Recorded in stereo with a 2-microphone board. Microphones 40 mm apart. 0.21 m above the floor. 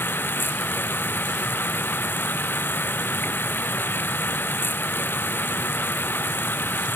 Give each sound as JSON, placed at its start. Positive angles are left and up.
{"t": 0.0, "sound": "running water", "side_deg": 60}